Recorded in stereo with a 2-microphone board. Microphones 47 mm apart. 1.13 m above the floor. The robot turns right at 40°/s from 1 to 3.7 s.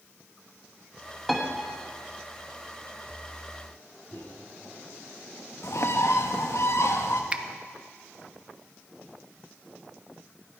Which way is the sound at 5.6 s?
70° left (ahead or behind).